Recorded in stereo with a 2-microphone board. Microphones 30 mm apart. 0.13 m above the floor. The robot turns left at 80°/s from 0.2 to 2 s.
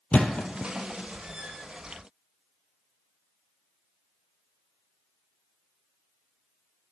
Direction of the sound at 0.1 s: 70° left (ahead or behind).